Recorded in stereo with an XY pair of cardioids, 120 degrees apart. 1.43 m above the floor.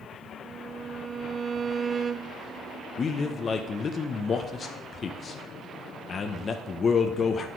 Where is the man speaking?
35° left, 0.9 m.